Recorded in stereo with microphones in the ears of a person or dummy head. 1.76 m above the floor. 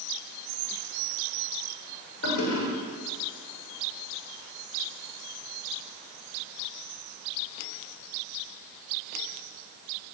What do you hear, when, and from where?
2.2 s a toilet flushing: 85° left, 8.5 m